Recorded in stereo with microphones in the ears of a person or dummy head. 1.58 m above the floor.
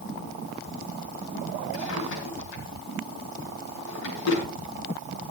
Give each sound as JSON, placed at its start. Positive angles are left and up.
{"t": 1.7, "sound": "a drawer", "side_deg": 80, "distance_m": 6.0}